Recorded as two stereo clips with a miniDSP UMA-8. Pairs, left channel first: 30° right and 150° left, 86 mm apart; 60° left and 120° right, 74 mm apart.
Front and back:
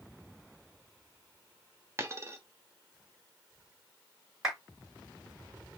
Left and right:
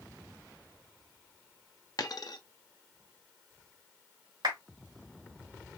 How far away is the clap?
About 3.5 m.